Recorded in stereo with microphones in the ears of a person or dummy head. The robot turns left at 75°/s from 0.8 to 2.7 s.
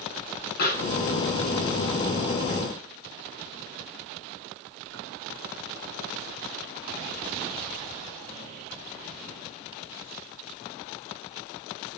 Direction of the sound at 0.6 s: 60° left (ahead or behind).